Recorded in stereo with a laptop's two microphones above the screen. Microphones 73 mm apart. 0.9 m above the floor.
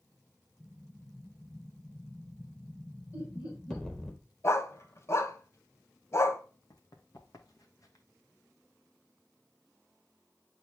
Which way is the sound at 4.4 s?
40° left (ahead or behind).